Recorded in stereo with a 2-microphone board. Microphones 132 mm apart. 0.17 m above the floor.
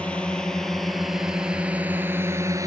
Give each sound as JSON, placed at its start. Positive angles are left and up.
{"t": 0.0, "sound": "a drone", "side_deg": 10}